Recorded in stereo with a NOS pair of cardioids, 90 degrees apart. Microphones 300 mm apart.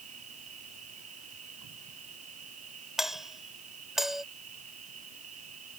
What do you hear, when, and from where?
0.0 s an insect: 55° right
3.0 s a doorbell: straight ahead